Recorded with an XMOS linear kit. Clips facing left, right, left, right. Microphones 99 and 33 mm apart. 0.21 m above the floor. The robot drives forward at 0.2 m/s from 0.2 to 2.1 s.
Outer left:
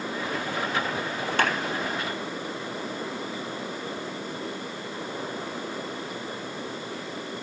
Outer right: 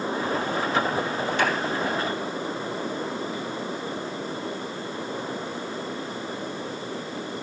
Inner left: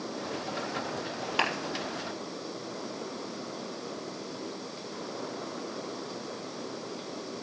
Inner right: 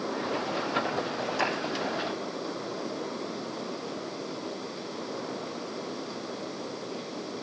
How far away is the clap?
About 2.5 m.